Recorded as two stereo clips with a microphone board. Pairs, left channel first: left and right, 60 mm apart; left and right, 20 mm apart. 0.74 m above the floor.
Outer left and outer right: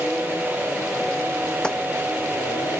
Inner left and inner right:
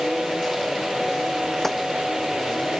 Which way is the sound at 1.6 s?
15° left (ahead or behind).